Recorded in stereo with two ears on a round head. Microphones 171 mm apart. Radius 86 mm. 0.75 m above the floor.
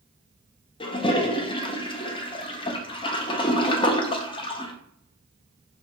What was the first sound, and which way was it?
A toilet flushing, 25° left (ahead or behind).